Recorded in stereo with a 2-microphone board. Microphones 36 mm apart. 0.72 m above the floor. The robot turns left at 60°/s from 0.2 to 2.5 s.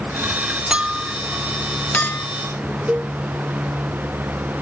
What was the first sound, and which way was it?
A clink, 30° right (ahead or behind).